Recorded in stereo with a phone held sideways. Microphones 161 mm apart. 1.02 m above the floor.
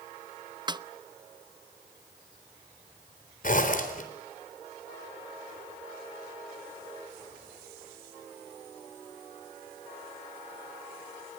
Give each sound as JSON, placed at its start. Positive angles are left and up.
{"t": 0.7, "sound": "a snare drum", "side_deg": -25, "distance_m": 0.6}
{"t": 3.4, "sound": "a zipper", "side_deg": 55, "distance_m": 4.0}